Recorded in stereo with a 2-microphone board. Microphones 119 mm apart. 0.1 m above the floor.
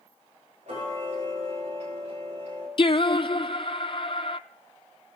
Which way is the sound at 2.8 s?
45° left (ahead or behind).